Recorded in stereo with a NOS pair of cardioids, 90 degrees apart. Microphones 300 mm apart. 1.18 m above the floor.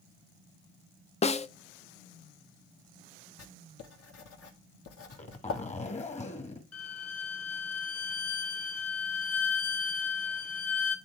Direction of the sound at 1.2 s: 25° left.